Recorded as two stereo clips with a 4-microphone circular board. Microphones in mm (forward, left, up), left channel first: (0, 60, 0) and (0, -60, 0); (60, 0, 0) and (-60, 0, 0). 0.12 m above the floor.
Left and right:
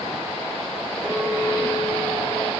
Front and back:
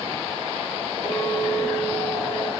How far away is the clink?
About 4 m.